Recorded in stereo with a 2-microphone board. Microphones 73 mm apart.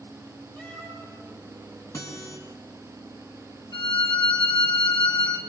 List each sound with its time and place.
0.6 s a cat meowing: 20° left (ahead or behind), 9.5 m
1.9 s a guitar: 50° left (ahead or behind), 7.5 m
3.7 s a violin: 75° left (ahead or behind), 2.5 m